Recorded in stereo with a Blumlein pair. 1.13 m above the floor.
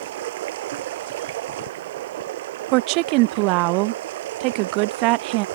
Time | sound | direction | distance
0.0 | running water | 55° right | ?
2.7 | a woman speaking | 40° right | ?